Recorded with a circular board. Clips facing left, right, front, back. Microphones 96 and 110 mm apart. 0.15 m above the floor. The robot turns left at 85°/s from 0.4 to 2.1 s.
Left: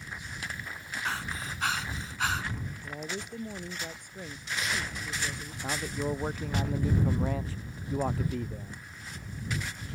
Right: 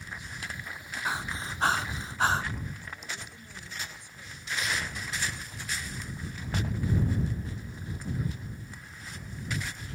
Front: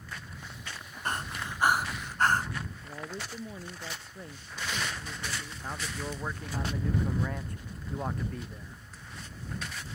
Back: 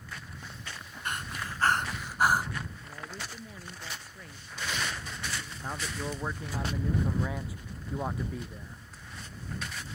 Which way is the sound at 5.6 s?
95° left.